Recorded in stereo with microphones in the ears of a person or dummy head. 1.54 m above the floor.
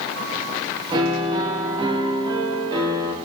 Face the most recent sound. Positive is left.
turn(degrees=-30)  # may be behind; listen again after turning